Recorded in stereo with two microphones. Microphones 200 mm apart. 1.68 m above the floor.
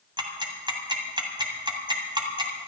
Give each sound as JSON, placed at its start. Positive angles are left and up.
{"t": 0.2, "sound": "ticking", "side_deg": -20, "distance_m": 1.9}